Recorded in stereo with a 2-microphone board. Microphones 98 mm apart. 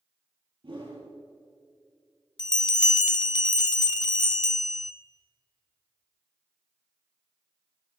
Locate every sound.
0.6 s a whoosh: 60° right (ahead or behind), 4.5 m
2.4 s a bell: 50° left (ahead or behind), 0.6 m